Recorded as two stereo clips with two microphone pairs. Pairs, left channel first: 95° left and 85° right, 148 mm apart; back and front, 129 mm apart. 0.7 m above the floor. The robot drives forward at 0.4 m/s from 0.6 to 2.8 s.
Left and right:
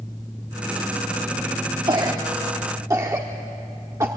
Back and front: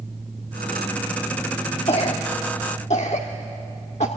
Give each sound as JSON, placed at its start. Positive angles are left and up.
{"t": 1.9, "sound": "a cough", "azimuth_deg": -145, "distance_m": 0.9}